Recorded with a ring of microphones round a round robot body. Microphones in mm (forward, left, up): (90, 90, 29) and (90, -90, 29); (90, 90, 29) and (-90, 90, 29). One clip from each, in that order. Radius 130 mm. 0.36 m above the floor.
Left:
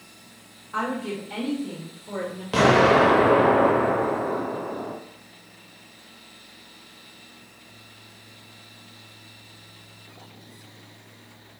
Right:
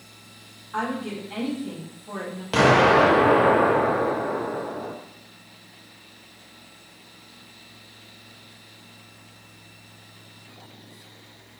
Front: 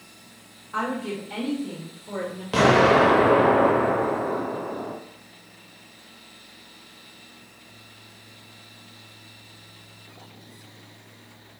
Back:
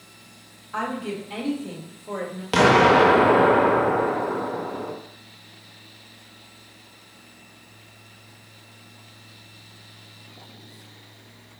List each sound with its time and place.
0.7 s a woman speaking: 85° left, 1.3 m; by 2.4 s 160° left, 1.5 m
2.5 s an explosion: 155° right, 0.6 m